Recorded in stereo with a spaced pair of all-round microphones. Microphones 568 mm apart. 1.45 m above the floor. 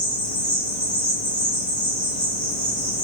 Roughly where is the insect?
Left.